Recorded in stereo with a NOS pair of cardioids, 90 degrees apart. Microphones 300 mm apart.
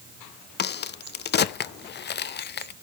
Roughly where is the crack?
Ahead left.